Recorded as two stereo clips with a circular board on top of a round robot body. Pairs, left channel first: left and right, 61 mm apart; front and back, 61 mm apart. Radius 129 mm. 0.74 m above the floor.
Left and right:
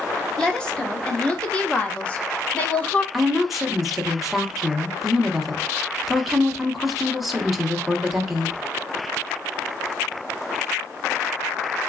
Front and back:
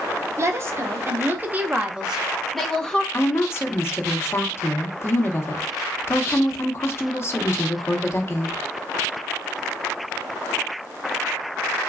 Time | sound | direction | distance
0.4 | a woman speaking | 165° left | 1.5 m
3.1 | a woman speaking | 5° right | 1.2 m